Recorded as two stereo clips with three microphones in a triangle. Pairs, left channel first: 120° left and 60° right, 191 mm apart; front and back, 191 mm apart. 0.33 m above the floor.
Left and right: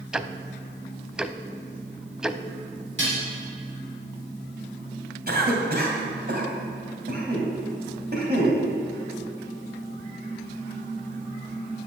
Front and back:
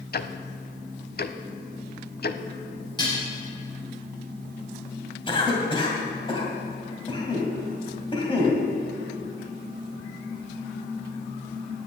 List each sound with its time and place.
0.1 s ticking: 25° left, 0.6 m
3.0 s dishes clattering: 70° right, 4.5 m
5.3 s a cough: 60° right, 2.5 m